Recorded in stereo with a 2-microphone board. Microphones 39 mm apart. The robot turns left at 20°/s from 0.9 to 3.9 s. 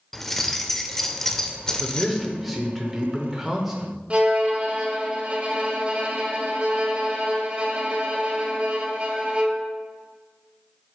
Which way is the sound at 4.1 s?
30° right (ahead or behind).